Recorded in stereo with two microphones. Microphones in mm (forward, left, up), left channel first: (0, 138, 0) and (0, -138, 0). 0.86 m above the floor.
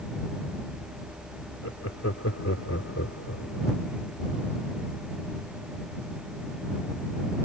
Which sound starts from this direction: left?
Laughter, at 1.6 s.